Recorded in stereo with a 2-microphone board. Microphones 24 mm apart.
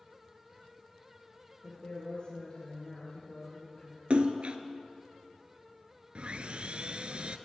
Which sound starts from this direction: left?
A woman speaking, at 1.6 s.